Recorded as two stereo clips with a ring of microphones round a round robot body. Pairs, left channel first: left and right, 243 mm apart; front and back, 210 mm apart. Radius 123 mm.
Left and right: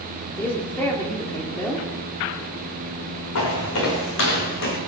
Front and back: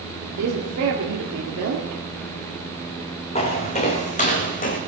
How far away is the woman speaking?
About 2 m.